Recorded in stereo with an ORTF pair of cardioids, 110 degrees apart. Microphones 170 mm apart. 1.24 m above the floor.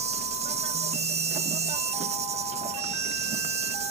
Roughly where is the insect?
Ahead right.